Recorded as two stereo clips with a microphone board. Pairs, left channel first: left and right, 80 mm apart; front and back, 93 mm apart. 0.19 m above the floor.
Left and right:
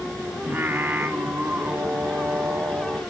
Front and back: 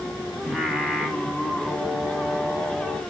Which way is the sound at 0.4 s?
105° right.